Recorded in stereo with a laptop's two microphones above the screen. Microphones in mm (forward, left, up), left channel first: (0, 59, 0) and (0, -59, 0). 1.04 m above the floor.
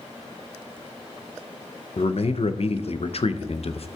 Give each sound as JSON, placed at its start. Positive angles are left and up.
{"t": 2.0, "sound": "a man speaking", "side_deg": 60, "distance_m": 0.5}